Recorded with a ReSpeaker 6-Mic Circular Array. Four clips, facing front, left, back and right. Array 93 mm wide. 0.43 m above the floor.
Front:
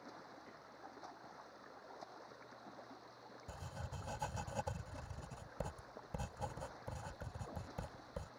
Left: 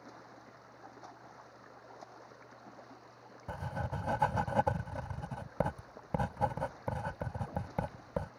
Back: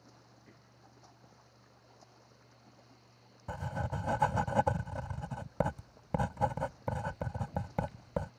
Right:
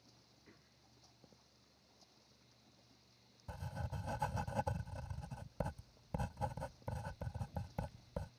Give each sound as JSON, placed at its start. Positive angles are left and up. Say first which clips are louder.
{"t": 0.0, "sound": "running water", "louder": "left 16 dB, front 6 dB", "azimuth_deg": 65}
{"t": 3.5, "sound": "writing", "louder": "left 9 dB, back 14 dB", "azimuth_deg": 140}